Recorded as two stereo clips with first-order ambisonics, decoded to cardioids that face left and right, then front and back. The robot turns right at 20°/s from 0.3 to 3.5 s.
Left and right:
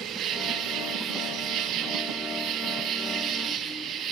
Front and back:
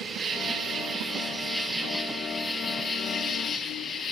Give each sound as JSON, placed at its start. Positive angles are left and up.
{"t": 0.0, "sound": "an insect", "azimuth_deg": -125, "distance_m": 1.5}